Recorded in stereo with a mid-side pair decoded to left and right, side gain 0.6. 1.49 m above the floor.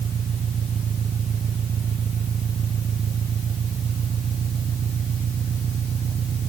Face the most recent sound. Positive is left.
turn(degrees=-40)